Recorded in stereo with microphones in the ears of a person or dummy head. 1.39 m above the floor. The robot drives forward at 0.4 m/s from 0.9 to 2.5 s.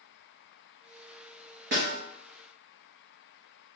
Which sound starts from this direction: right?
A snare drum, at 1.7 s.